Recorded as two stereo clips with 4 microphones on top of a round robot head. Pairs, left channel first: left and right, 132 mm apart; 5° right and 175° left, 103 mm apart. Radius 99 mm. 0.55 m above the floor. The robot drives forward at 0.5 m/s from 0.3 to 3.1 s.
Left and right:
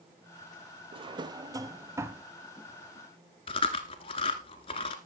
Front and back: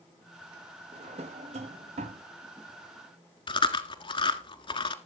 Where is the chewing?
30° left, 1.3 m.